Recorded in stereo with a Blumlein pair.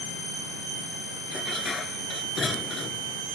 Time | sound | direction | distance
1.3 | dishes clattering | 20° left | ?